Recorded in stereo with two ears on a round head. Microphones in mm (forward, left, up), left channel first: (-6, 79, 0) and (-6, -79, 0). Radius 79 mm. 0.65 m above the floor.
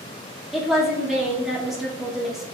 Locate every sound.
0.5 s a woman speaking: centre (ahead or behind), 1.5 m